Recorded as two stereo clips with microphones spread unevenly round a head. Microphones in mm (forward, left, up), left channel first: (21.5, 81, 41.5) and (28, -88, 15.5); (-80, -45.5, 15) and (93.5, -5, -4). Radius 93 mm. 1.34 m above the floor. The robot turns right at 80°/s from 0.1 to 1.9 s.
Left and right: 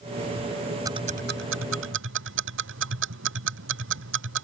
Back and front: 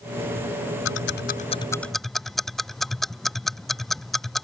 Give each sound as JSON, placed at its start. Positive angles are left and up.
{"t": 0.8, "sound": "ticking", "azimuth_deg": -165}